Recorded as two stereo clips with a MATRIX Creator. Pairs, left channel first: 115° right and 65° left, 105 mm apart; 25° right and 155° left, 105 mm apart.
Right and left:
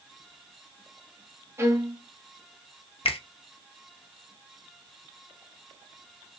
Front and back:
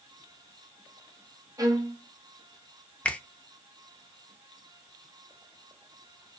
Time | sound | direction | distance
1.6 | a violin | 120° left | 0.7 m
3.0 | a finger snap | 100° right | 0.5 m